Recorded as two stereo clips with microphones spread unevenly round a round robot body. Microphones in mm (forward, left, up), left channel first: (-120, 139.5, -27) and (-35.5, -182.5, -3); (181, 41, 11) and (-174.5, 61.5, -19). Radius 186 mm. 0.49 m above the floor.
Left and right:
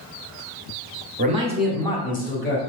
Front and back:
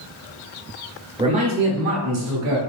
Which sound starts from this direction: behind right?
A man speaking, at 1.2 s.